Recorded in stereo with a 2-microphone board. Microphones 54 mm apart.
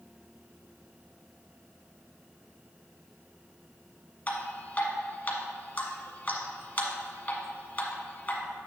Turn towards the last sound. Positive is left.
turn(degrees=30)  # may be behind; listen again after turning